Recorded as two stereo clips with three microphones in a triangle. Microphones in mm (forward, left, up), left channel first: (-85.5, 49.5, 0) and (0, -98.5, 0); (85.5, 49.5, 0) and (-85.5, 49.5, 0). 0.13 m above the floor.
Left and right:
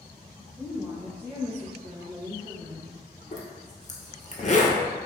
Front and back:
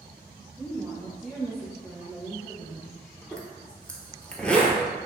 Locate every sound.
0.6 s a woman speaking: 85° right, 1.9 m; by 2.9 s 10° left, 1.3 m
3.3 s a zipper: 85° left, 0.7 m